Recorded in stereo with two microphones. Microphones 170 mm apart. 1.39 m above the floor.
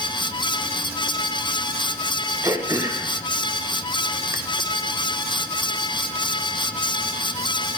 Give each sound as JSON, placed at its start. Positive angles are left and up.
{"t": 2.4, "sound": "throat clearing", "side_deg": -20, "distance_m": 0.7}